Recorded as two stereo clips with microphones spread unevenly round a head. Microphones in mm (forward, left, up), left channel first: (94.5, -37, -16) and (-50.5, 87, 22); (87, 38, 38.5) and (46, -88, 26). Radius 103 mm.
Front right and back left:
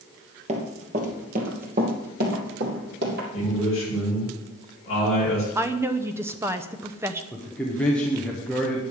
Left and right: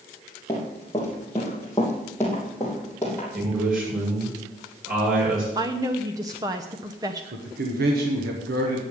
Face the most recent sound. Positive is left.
turn(degrees=-130)